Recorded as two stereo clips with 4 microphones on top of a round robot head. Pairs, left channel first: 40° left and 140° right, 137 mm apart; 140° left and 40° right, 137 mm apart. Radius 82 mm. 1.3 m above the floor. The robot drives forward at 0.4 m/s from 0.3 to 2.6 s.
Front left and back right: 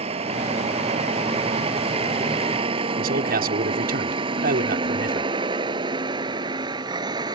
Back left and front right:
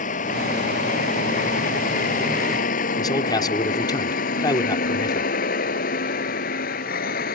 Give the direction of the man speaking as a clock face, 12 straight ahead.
5 o'clock.